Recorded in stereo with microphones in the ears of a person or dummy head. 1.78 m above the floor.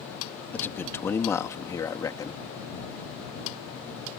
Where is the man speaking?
10° left (ahead or behind); by 2.4 s 20° left (ahead or behind).